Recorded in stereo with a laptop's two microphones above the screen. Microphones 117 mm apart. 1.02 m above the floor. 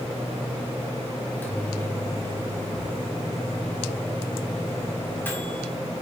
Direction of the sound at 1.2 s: 15° left (ahead or behind).